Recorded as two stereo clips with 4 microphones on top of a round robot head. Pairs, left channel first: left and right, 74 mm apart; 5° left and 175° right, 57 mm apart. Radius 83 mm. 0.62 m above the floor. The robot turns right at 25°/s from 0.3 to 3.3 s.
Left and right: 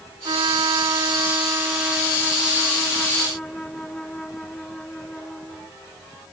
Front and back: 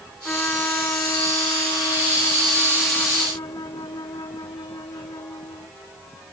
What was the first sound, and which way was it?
A trumpet, 65° right.